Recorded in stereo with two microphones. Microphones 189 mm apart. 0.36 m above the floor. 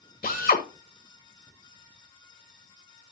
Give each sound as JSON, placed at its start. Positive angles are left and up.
{"t": 0.2, "sound": "a drill", "side_deg": 50, "distance_m": 1.6}